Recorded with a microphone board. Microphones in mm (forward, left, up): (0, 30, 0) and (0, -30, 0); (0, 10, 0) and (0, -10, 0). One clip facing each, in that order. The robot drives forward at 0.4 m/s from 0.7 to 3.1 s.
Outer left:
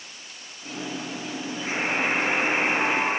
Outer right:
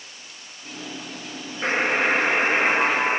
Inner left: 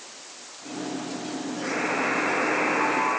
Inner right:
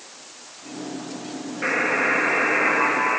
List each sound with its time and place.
1.6 s a buzzer: 55° right (ahead or behind), 4 m; by 3.2 s 65° right (ahead or behind), 4 m